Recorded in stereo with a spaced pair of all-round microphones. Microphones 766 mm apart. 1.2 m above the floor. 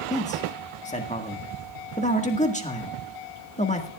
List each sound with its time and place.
0.1 s a man speaking: 10° left (ahead or behind), 1.6 m